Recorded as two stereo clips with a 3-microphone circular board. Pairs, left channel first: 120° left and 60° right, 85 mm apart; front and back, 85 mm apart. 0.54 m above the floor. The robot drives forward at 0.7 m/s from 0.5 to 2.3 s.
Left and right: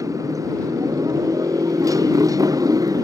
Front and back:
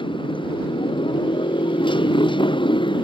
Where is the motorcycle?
10° right; by 3.0 s 15° right.